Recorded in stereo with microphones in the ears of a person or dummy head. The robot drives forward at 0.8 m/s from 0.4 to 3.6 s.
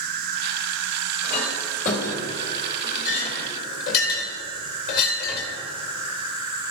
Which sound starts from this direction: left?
A clink, at 1.2 s.